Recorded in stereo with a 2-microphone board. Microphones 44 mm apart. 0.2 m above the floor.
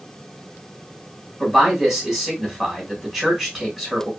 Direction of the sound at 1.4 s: 10° right (ahead or behind).